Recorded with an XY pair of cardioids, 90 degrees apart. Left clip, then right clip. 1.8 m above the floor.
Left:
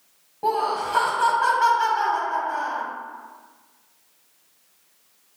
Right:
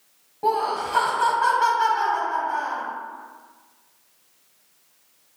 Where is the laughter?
Straight ahead, 1.0 m.